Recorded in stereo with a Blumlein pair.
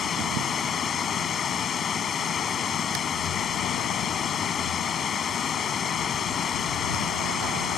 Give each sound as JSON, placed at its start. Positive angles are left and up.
{"t": 0.0, "sound": "running water", "azimuth_deg": 20}